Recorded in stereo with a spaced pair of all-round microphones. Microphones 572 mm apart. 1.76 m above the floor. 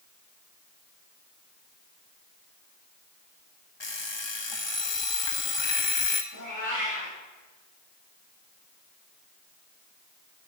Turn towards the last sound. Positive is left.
turn(degrees=35)  # may be behind; listen again after turning